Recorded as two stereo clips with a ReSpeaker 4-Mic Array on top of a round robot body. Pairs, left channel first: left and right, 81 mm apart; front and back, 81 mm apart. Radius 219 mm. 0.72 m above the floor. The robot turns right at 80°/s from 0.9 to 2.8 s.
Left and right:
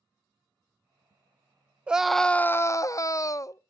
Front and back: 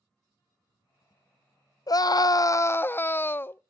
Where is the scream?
20° right, 0.6 m; by 3.6 s 55° left, 0.6 m.